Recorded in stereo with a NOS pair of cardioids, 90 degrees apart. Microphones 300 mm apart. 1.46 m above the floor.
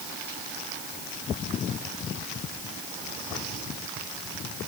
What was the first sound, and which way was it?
Only background noise.